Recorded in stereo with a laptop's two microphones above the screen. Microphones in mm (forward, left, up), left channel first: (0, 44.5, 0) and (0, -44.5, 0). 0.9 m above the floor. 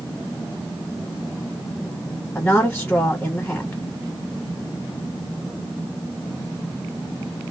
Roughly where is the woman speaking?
Centre.